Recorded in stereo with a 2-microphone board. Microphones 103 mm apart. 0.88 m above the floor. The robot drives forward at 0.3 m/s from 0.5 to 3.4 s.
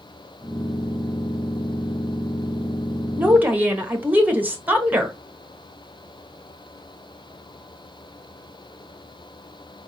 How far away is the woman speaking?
About 1.0 m.